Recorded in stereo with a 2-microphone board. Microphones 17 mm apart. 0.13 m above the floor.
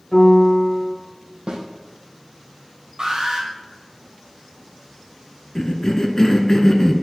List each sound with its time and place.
0.1 s a piano: 40° left (ahead or behind), 3 m
1.5 s a snare drum: 65° right (ahead or behind), 2 m
3.0 s an alarm: 50° right (ahead or behind), 3 m
5.5 s a cough: 30° left (ahead or behind), 1.3 m